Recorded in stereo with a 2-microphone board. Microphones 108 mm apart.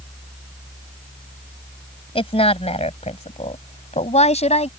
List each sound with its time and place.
2.1 s a woman speaking: 55° left (ahead or behind); by 4.7 s 70° left (ahead or behind)